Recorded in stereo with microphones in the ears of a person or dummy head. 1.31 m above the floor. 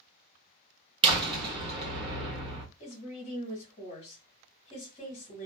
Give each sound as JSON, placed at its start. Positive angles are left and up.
{"t": 1.0, "sound": "a door slam", "side_deg": -25, "distance_m": 1.1}
{"t": 2.8, "sound": "a woman speaking", "side_deg": 40, "distance_m": 1.5}